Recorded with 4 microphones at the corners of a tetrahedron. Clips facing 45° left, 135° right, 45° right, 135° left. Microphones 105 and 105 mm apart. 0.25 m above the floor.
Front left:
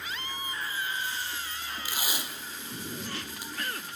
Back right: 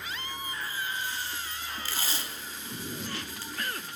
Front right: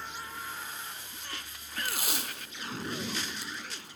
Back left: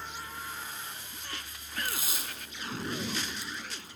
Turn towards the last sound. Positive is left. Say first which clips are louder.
# front left 2 dB, front right 5 dB
turn(degrees=-30)